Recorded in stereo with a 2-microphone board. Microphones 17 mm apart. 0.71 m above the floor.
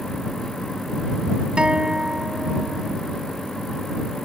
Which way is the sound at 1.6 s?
65° right (ahead or behind).